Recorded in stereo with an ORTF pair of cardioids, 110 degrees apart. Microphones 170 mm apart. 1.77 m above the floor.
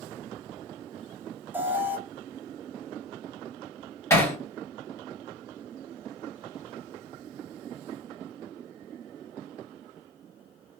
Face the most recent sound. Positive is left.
turn(degrees=15)